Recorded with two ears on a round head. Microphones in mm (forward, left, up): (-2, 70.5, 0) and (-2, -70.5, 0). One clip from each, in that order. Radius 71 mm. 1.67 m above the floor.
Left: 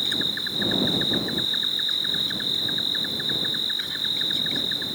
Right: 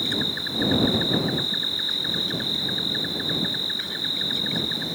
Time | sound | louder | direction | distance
0.0 | an insect | left 1 dB | 30° left (ahead or behind) | ?